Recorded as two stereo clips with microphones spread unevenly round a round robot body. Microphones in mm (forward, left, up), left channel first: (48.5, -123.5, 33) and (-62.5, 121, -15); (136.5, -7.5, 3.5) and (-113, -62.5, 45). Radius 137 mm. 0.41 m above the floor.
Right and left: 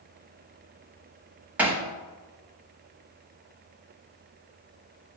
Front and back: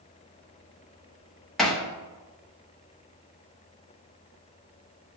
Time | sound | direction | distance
1.6 | hammering | 70° left | 1.1 m